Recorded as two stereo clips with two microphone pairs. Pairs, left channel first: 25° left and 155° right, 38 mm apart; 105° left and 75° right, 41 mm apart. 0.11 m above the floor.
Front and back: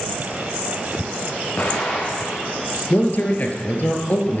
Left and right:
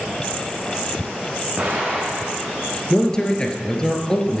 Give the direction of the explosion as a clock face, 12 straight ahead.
12 o'clock.